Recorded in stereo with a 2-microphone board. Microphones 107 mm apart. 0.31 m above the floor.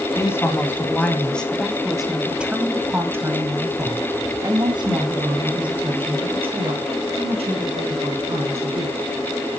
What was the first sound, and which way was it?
A woman speaking, 25° left (ahead or behind).